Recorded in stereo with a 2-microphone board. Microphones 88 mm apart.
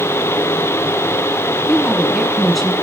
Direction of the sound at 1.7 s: Centre (ahead or behind).